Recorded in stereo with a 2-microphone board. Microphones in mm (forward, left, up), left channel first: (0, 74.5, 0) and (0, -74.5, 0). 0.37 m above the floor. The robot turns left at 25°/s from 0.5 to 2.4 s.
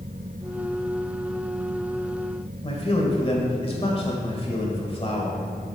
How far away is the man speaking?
About 1.4 m.